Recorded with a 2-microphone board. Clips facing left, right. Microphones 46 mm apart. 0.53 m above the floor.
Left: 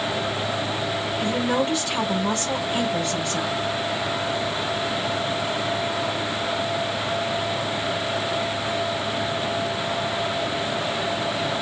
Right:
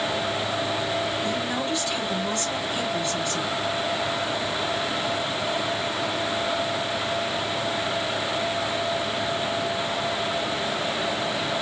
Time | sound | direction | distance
1.2 | a woman speaking | 70° left (ahead or behind) | 4 m